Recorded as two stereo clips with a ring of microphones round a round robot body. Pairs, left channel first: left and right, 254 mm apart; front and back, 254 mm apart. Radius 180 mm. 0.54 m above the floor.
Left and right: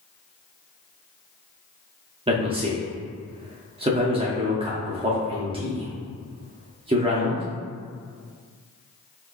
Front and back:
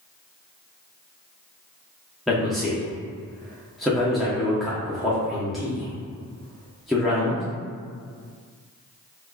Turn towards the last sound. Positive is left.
turn(degrees=-90)